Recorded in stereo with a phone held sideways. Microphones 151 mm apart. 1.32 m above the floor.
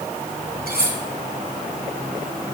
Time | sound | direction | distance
0.7 | cutlery clinking | 70° right (ahead or behind) | 2.5 m